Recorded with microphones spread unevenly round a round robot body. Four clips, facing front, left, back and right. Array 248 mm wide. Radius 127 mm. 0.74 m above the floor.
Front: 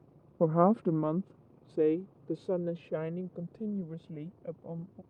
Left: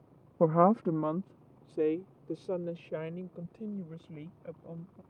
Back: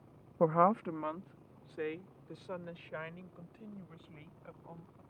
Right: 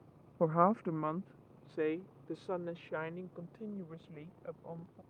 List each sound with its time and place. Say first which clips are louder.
0.4 s a woman speaking: left 5 dB, front 3 dB; 70° left; by 5.0 s 15° left